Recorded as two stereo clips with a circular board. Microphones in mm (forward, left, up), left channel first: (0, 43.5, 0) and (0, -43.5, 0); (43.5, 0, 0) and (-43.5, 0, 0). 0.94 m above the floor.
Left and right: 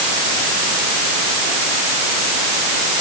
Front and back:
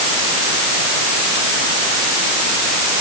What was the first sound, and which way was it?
Only background noise.